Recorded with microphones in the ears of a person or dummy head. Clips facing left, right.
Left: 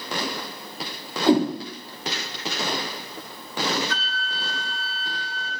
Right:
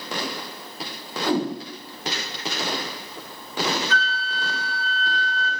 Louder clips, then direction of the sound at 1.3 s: Left 5 dB; 20° left (ahead or behind).